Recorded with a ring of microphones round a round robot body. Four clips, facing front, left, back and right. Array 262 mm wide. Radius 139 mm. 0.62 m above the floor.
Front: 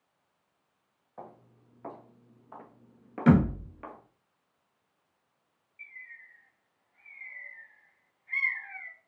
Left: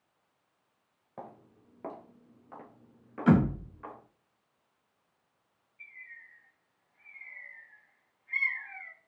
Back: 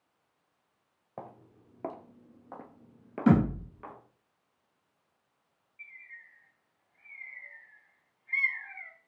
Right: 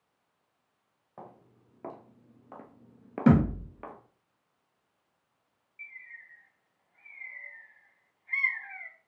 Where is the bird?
85° right, 3 m.